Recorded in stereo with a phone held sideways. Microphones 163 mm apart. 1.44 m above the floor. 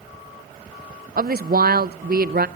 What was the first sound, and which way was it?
A woman speaking, 70° right (ahead or behind).